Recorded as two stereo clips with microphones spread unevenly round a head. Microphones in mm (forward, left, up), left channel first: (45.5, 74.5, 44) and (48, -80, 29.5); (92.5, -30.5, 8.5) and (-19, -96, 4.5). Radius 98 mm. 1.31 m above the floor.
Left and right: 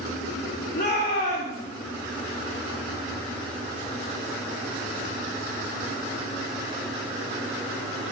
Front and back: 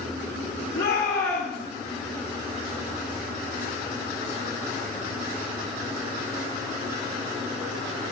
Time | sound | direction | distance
0.7 | a shout | 60° left | 5 m